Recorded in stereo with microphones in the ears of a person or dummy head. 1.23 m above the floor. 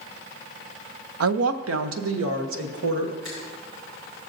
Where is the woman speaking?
75° right (ahead or behind), 0.5 m; by 3.1 s 80° right, 1.4 m.